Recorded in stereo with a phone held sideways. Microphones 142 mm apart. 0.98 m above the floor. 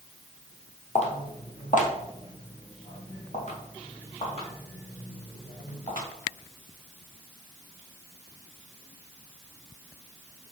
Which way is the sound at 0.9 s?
50° left (ahead or behind).